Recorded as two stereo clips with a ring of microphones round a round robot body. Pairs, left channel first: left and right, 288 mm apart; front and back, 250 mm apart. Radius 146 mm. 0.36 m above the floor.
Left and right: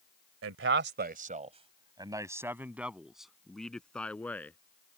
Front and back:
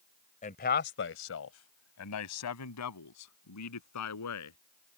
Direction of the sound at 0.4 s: 60° right.